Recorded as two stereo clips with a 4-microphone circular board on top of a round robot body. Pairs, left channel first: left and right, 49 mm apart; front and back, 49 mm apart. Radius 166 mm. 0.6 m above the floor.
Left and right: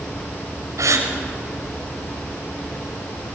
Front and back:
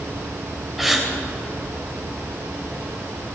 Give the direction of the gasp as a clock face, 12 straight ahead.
3 o'clock.